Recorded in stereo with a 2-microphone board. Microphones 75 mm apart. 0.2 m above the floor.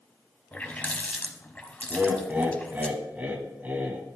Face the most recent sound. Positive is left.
turn(degrees=-20)  # may be behind; listen again after turning